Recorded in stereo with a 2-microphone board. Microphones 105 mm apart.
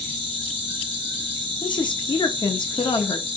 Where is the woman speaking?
45° left (ahead or behind), 0.9 m.